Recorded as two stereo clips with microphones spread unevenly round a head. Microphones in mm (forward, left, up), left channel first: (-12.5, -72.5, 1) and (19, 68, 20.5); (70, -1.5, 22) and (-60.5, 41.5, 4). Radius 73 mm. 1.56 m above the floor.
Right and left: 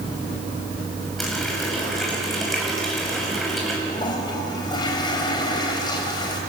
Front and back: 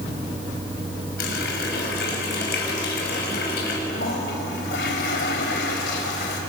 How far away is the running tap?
About 6 m.